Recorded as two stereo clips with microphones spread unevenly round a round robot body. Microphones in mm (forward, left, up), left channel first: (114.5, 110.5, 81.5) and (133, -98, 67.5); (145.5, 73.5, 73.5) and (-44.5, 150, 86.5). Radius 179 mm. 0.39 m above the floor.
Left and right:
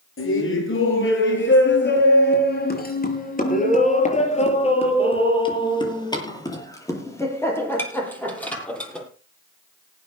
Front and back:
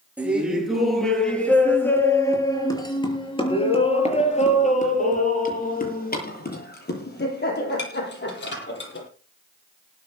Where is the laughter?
75° left, 8 m; by 9.1 s 10° left, 12 m.